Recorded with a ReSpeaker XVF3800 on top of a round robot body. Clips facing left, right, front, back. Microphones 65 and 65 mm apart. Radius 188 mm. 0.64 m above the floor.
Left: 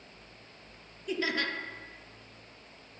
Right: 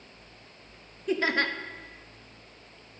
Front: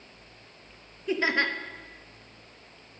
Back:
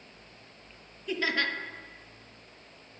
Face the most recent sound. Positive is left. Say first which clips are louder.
# right 5 dB, front 4 dB
turn(degrees=-60)